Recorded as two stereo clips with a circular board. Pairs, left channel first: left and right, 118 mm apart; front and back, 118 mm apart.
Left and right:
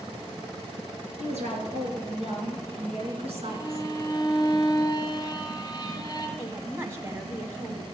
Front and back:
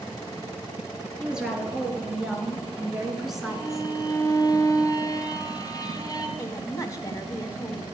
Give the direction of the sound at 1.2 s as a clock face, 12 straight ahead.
3 o'clock.